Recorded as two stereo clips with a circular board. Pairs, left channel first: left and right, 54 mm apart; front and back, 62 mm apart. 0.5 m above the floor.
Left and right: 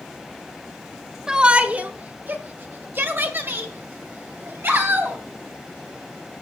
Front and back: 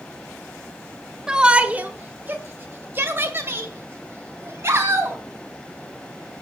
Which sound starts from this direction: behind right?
A shout, at 1.3 s.